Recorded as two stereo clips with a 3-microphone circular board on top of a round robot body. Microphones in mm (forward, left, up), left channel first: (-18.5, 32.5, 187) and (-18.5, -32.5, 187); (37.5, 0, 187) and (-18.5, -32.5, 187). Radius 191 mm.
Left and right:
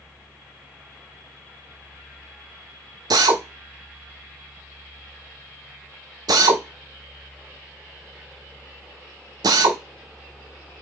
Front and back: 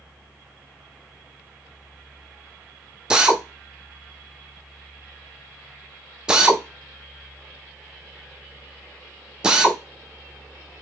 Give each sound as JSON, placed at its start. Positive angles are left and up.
{"t": 3.1, "sound": "a drill", "azimuth_deg": -70, "distance_m": 0.5}